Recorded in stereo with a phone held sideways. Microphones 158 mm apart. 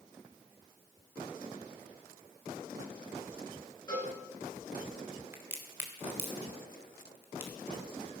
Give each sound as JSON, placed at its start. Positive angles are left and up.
{"t": 3.9, "sound": "a cowbell", "side_deg": 25, "distance_m": 8.5}
{"t": 5.3, "sound": "a crack", "side_deg": -15, "distance_m": 2.0}